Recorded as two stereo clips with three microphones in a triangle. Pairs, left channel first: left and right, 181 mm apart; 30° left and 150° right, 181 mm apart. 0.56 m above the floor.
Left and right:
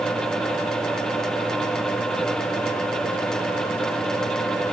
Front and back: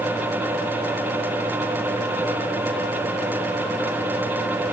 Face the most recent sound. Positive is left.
No sound to turn to.